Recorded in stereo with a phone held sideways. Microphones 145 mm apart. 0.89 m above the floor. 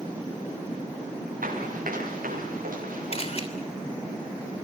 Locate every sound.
1.4 s running footsteps: 80° right, 9 m; by 3.2 s 75° right (ahead or behind), 10.5 m
3.1 s a camera shutter: 45° left (ahead or behind), 3 m